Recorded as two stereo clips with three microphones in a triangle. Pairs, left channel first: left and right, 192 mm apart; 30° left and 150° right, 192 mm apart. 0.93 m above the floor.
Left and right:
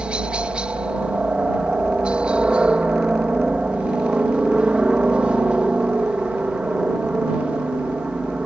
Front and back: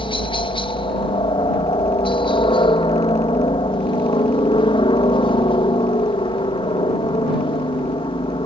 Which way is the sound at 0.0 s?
10° right.